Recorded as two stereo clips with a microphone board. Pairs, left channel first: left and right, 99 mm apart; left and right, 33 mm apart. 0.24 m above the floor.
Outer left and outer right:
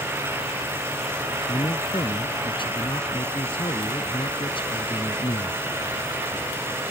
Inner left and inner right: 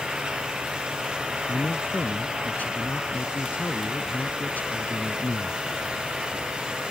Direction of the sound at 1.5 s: 60° left (ahead or behind).